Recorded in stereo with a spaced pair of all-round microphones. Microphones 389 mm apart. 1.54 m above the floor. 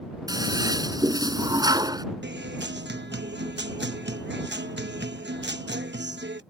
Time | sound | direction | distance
0.3 | a toilet flushing | 10° right (ahead or behind) | ?
2.2 | a guitar | 25° right (ahead or behind) | ?